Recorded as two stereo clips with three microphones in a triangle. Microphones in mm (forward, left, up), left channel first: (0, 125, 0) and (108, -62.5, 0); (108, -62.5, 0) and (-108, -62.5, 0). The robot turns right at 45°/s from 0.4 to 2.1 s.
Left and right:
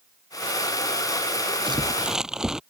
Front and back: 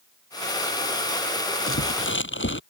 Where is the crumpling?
10° left; by 2.6 s 30° left.